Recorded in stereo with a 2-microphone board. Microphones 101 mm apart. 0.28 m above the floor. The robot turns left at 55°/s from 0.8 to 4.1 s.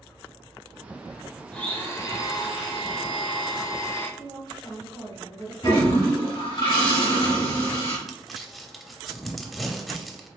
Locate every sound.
1.5 s a blender: 170° left, 0.9 m; by 4.1 s 30° left, 0.9 m
4.2 s a woman speaking: 40° left (ahead or behind), 2 m
5.6 s a toilet flushing: 50° left (ahead or behind), 1.9 m
8.1 s crumpling: centre (ahead or behind), 0.5 m